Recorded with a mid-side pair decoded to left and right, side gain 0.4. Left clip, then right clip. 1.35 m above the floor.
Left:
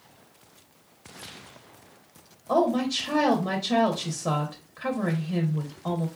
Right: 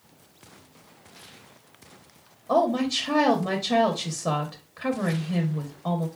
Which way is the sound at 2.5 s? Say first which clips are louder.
Right 1 dB; 5° right.